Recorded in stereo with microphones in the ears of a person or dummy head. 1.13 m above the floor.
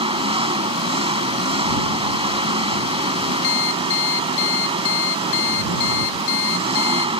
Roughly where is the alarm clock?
Left.